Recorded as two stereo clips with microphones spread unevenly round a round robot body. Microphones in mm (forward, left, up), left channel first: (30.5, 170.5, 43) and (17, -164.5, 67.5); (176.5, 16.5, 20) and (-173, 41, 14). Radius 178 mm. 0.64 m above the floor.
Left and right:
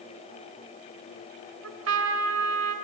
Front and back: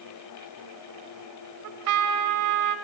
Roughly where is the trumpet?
Behind right.